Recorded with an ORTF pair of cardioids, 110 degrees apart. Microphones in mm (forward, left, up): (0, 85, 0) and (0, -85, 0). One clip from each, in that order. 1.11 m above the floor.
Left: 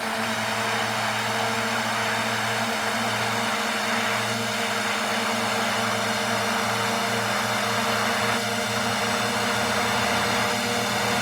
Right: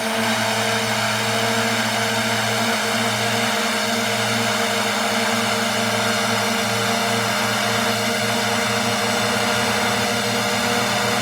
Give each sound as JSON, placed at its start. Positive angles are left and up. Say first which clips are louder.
{"t": 0.0, "sound": "a drone", "louder": "right 5 dB", "azimuth_deg": -45}